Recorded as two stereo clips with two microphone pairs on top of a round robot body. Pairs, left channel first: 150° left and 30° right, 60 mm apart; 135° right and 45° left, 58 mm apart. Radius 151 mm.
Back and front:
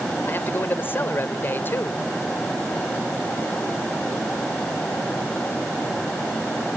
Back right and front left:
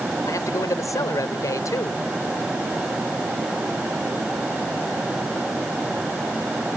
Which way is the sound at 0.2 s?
160° right.